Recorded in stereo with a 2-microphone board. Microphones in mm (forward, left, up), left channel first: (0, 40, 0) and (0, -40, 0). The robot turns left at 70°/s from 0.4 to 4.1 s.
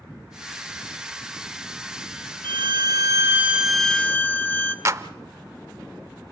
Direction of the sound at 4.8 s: 40° right (ahead or behind).